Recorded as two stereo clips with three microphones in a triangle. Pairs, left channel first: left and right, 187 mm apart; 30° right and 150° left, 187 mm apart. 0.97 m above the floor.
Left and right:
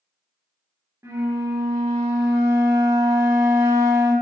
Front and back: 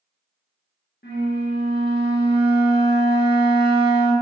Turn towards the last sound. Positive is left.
turn(degrees=-15)